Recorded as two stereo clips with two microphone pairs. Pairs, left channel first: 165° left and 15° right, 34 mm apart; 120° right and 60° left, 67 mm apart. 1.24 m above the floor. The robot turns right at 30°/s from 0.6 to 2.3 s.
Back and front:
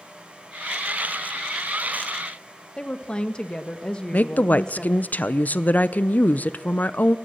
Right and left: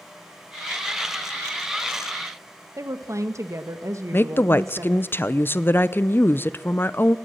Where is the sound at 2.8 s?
100° left, 1.0 m.